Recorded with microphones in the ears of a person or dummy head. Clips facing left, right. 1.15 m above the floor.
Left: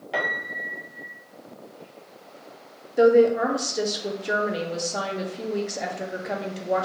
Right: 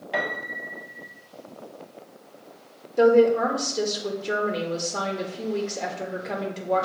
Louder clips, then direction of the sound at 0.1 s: Right 1 dB; 5° right (ahead or behind).